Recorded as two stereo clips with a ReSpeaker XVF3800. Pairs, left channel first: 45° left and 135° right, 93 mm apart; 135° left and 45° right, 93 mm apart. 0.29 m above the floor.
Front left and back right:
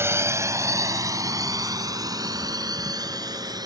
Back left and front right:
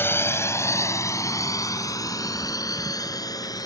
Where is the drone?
175° right; by 3.7 s straight behind.